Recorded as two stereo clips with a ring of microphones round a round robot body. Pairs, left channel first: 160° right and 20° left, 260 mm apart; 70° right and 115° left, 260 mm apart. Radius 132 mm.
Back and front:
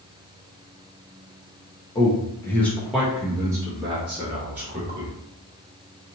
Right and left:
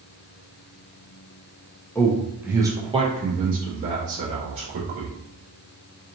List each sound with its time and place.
1.9 s a man speaking: 135° right, 0.9 m; by 5.1 s 85° left, 1.7 m